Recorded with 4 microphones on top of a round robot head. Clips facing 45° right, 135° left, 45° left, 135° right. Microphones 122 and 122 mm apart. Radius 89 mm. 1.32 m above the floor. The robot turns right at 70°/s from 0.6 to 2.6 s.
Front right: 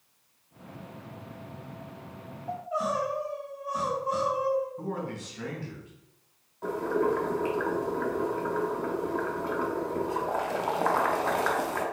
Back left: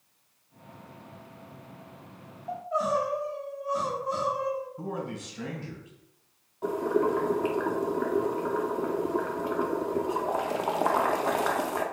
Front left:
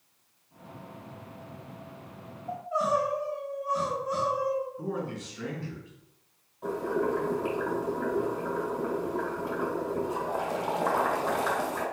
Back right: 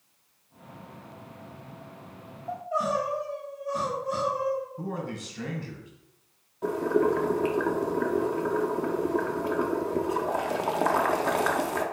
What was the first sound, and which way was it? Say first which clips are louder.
Crying: back left 2 dB, even; 130° right.